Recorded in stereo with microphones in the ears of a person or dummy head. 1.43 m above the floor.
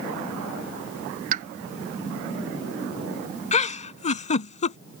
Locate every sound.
1.3 s a pop: 45° right (ahead or behind)
3.5 s a giggle: 40° left (ahead or behind)